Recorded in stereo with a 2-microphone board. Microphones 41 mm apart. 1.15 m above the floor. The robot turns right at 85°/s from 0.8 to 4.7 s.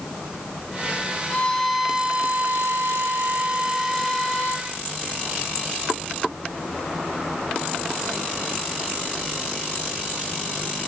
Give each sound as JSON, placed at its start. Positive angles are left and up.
{"t": 1.3, "sound": "a violin", "azimuth_deg": 145, "distance_m": 1.0}